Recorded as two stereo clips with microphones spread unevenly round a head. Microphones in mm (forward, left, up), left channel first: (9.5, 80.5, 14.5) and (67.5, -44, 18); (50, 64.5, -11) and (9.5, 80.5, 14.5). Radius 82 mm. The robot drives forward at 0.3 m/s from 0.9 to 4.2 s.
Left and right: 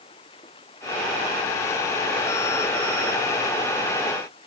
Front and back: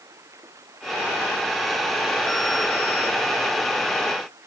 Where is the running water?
Straight behind.